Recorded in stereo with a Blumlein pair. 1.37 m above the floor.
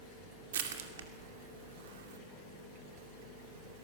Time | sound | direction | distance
0.5 | crushing | 60° right | 2.5 m